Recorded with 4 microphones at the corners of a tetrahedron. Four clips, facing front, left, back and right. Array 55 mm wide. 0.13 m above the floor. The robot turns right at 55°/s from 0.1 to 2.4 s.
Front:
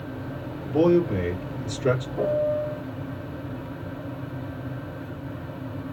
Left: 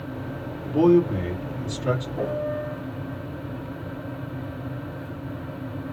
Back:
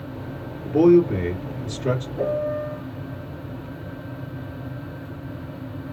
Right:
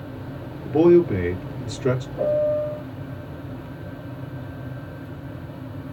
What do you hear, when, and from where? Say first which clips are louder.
0.7 s a man speaking: right 3 dB, back 5 dB; 115° right, 2.5 m; by 2.1 s 35° right, 2.5 m
2.2 s a piano: right 6 dB, front 1 dB; 25° left, 2 m; by 2.9 s 40° left, 2 m